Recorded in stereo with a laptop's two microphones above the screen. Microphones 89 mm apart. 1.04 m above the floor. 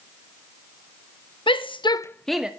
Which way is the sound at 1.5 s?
75° left (ahead or behind).